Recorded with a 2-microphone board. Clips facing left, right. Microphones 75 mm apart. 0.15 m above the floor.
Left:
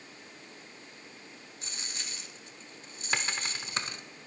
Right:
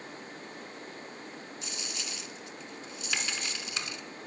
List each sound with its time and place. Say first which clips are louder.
1.6 s a dropped coin: left 1 dB; 40° left (ahead or behind), 0.7 m